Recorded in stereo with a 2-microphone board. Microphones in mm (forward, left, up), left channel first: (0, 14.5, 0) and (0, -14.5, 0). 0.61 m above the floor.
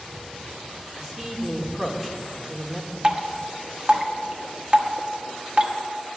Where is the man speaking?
5° right (ahead or behind), 2 m.